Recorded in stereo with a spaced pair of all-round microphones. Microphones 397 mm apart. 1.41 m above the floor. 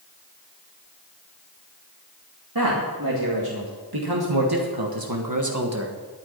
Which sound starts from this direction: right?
A man speaking, at 2.5 s.